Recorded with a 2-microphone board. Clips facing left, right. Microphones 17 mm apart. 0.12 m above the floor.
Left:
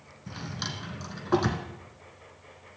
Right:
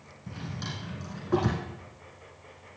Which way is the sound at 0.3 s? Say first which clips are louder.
Left 2 dB; 50° left (ahead or behind).